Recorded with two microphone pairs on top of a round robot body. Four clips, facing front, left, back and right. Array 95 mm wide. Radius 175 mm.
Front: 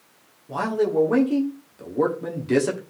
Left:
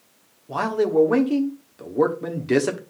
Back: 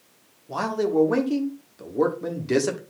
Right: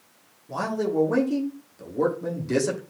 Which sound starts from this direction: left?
A man speaking, at 0.5 s.